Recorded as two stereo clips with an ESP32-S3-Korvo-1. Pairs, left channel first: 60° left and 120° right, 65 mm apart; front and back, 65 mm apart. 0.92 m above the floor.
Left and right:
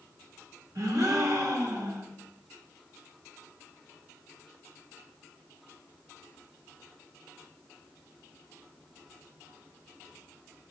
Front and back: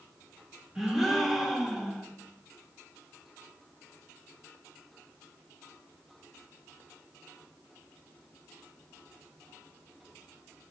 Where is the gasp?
95° right, 1.2 m.